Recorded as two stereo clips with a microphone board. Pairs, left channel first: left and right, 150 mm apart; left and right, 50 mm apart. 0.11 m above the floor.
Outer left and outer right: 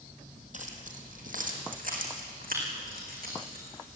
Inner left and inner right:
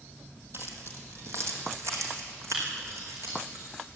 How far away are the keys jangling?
About 3 m.